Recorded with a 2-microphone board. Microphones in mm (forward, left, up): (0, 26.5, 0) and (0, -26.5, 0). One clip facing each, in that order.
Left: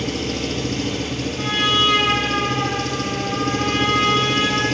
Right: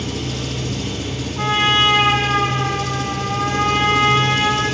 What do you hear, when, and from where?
0.0 s an engine running: 60° left (ahead or behind), 1.4 m
1.4 s a trumpet: 35° right (ahead or behind), 0.9 m